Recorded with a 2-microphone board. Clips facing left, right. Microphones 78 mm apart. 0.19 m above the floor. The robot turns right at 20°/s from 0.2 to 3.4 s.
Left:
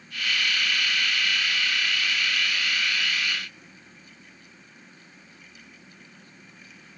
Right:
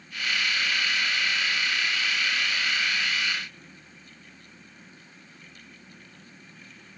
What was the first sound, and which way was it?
Only background noise.